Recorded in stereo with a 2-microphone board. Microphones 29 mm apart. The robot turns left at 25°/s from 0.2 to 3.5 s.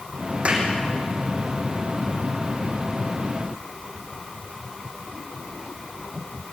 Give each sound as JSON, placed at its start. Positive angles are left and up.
{"t": 0.5, "sound": "a clap", "side_deg": -40, "distance_m": 6.5}